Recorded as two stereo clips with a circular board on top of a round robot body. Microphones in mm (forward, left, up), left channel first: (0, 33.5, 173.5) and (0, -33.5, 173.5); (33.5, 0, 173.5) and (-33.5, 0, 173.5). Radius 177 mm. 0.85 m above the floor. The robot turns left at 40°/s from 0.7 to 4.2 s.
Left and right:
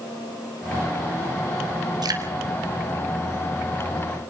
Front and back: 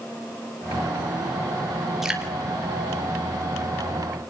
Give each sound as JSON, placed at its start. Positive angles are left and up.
{"t": 2.0, "sound": "dripping", "azimuth_deg": -95, "distance_m": 3.5}